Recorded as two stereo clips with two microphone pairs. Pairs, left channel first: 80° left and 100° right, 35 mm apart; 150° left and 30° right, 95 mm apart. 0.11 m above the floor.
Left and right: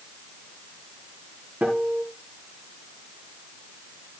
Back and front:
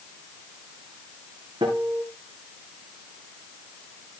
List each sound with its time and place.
1.6 s a guitar: 60° right, 7 m